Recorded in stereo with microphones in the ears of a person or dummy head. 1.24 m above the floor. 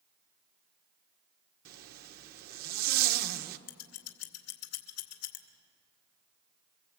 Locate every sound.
1.6 s a zipper: 55° right (ahead or behind), 1.1 m
3.7 s scissors: 70° left (ahead or behind), 2.5 m